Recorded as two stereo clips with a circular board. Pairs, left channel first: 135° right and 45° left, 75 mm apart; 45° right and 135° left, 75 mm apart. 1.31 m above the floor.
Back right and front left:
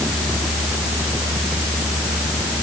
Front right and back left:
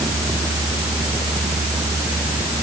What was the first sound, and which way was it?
Only background noise.